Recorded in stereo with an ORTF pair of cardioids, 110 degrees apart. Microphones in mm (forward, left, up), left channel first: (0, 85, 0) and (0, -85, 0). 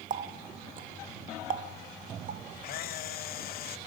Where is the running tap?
50° right, 0.9 m.